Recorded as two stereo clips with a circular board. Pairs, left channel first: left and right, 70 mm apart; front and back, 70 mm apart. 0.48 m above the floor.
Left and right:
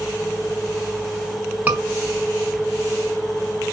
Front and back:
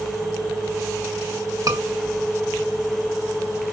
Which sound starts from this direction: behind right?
A scream, at 1.7 s.